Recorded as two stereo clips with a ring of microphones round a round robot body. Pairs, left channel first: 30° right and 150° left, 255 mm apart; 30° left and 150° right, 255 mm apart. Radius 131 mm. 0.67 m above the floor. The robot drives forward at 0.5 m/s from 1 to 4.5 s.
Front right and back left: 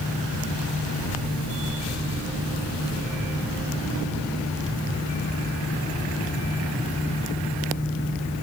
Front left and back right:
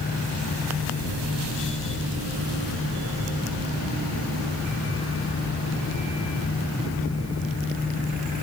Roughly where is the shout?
No shout in this recording.